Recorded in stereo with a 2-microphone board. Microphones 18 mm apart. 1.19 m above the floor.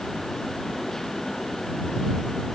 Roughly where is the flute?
I don't hear a flute.